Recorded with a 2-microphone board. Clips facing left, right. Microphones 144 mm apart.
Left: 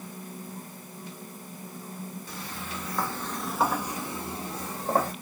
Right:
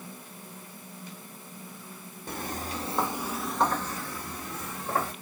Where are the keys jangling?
I don't hear keys jangling.